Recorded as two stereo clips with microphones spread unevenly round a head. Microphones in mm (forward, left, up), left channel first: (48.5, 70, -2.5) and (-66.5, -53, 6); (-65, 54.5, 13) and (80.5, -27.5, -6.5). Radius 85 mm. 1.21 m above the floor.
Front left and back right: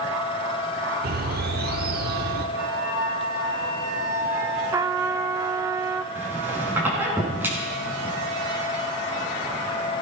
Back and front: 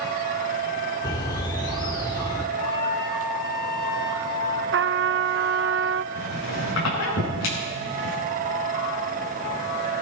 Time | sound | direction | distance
1.0 | a bird | 150° right | 1.2 m
2.6 | a flute | 150° left | 6.5 m
4.7 | a trumpet | 60° right | 0.6 m
6.2 | a squeak | 150° left | 9 m